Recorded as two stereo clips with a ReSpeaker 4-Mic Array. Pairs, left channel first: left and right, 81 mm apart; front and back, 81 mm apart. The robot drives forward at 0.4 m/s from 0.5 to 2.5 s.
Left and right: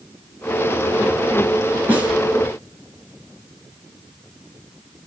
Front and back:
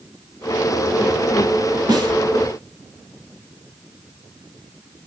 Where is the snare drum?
155° right, 1.6 m; by 2.1 s 160° right, 1.7 m.